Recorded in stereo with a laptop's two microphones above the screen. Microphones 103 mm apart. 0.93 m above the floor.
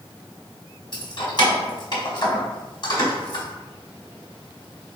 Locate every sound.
0.9 s keys jangling: 55° left (ahead or behind), 1.2 m